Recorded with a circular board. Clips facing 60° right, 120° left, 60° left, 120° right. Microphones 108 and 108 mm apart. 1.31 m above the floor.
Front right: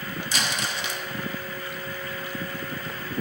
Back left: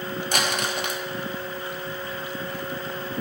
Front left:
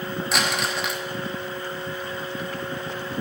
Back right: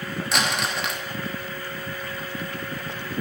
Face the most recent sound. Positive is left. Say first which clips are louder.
# back left 4 dB, even
turn(degrees=150)